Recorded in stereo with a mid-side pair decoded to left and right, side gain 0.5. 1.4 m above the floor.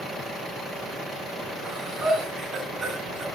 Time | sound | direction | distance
1.6 | breathing | 35° right | 8.5 m